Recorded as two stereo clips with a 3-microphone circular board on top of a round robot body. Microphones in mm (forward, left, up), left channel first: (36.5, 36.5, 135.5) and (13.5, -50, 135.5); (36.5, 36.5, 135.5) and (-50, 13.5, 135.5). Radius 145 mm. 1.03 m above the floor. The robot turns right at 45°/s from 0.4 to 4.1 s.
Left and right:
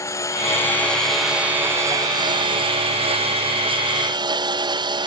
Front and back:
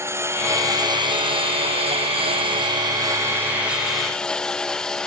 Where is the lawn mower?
135° left; by 5.1 s 70° right.